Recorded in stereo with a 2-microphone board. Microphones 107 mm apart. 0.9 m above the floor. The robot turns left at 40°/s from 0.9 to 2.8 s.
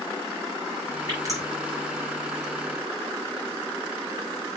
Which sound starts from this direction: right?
Dripping, at 1.1 s.